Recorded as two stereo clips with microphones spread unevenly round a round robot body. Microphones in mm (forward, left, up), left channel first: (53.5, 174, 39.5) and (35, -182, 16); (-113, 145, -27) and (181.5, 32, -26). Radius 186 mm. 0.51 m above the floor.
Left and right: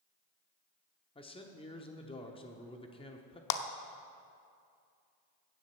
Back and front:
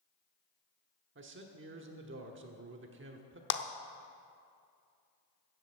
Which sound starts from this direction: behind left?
A clap, at 3.5 s.